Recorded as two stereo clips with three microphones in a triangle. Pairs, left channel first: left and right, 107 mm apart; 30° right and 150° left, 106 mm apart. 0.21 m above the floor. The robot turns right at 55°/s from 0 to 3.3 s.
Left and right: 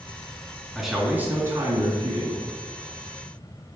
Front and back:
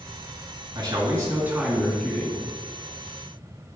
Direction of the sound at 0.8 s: Straight behind.